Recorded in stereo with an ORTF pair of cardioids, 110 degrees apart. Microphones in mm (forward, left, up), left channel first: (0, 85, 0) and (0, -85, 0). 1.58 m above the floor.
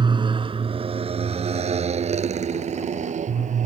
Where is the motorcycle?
25° right; by 3.6 s 45° right.